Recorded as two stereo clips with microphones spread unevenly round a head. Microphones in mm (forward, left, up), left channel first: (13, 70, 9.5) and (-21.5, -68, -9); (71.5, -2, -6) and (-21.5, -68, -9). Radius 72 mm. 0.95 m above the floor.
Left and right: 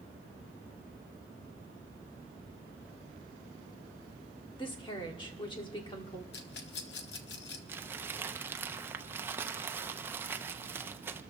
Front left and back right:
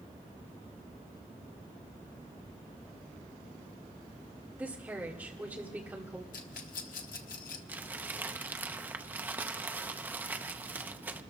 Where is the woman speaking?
135° left, 2.0 m.